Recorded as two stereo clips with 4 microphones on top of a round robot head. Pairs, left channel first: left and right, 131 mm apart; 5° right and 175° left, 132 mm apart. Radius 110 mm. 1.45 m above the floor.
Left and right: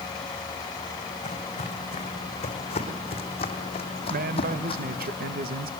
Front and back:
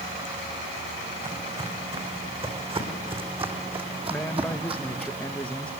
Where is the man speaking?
90° right, 1.3 m.